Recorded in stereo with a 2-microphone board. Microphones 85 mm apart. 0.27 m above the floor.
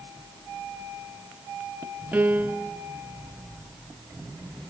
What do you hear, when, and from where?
2.1 s a piano: 25° right (ahead or behind), 1.0 m